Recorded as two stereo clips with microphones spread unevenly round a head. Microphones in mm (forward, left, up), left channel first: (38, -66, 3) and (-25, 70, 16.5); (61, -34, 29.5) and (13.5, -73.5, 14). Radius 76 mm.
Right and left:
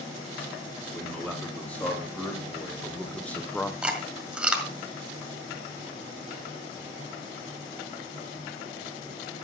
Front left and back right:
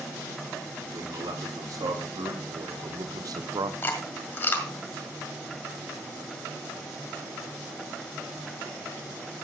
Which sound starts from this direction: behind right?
A man speaking, at 0.9 s.